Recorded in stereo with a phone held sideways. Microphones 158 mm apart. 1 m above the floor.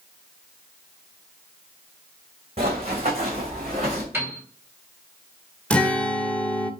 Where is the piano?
15° right (ahead or behind), 3.5 m.